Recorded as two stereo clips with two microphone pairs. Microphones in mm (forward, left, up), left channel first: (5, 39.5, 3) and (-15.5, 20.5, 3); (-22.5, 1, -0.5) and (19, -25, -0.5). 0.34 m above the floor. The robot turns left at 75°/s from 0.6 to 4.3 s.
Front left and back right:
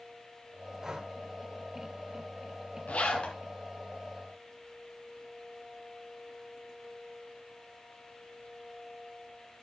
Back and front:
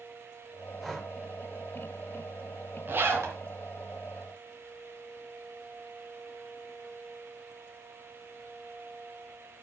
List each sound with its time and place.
0.8 s breathing: 130° right, 1.1 m; by 1.1 s 150° right, 1.1 m
2.9 s a zipper: 15° left, 2.5 m; by 3.4 s 20° right, 2.5 m